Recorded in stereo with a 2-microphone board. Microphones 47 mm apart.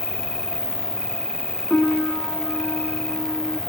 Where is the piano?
20° left (ahead or behind).